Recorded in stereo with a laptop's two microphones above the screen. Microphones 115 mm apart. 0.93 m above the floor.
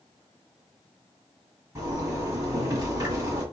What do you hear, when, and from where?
1.8 s a zipper: 20° right (ahead or behind), 1.2 m